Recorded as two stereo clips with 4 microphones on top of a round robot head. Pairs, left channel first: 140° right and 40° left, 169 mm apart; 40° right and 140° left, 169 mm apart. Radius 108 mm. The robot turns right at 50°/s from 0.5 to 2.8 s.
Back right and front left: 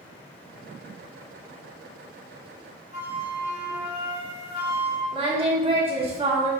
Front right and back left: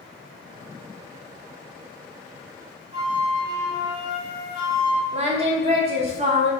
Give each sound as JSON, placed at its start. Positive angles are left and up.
{"t": 2.9, "sound": "a flute", "azimuth_deg": 90, "distance_m": 3.0}
{"t": 5.1, "sound": "singing", "azimuth_deg": 95, "distance_m": 1.3}